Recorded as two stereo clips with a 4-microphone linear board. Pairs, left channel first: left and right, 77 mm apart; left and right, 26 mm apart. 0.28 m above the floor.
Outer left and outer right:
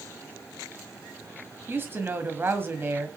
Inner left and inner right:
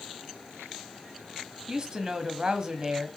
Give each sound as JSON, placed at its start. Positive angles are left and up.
{"t": 1.7, "sound": "a woman speaking", "side_deg": -30, "distance_m": 1.7}